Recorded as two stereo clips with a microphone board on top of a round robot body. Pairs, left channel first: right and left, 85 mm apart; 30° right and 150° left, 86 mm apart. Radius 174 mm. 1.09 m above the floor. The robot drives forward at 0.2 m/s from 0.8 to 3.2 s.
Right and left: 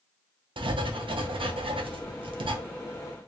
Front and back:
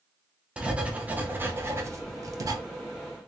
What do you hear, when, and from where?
0.6 s writing: 75° left, 0.7 m; by 2.6 s 105° left, 0.7 m